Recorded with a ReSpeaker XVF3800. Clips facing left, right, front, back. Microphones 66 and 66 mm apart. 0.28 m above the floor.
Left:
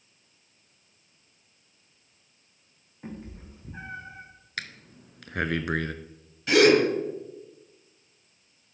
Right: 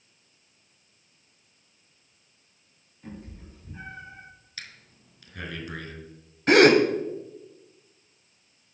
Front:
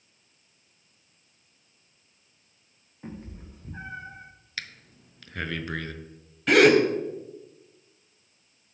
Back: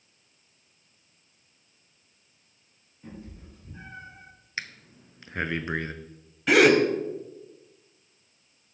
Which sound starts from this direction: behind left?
Breathing, at 4.6 s.